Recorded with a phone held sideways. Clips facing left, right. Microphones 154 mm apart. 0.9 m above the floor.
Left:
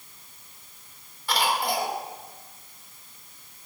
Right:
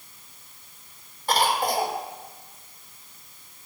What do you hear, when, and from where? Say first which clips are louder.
1.3 s a cough: right 3 dB; 45° right (ahead or behind), 2.5 m